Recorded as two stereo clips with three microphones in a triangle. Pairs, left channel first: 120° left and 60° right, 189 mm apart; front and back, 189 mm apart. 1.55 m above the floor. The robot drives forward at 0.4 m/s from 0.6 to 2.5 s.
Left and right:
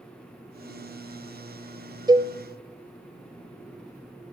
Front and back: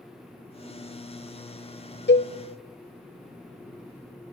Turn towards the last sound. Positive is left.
turn(degrees=15)